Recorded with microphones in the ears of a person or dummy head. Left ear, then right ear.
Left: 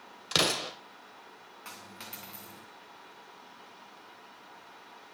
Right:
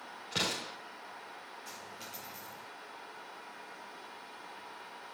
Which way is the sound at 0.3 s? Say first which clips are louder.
Left 7 dB; 65° left (ahead or behind).